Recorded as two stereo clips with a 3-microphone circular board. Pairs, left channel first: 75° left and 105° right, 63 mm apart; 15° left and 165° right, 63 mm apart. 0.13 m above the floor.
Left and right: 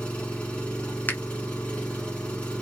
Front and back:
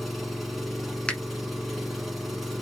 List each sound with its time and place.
0.0 s an engine running: 105° left, 1.1 m
1.1 s a finger snap: 70° left, 0.9 m